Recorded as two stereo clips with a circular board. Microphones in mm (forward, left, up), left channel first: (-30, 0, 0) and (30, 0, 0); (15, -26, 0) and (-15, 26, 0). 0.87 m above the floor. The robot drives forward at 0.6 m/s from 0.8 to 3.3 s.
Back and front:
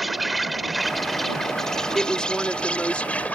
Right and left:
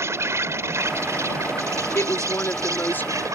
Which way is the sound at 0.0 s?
90° left.